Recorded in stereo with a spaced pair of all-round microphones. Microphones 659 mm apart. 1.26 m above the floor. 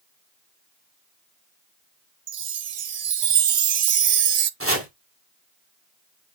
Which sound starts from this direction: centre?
Chopping, at 4.6 s.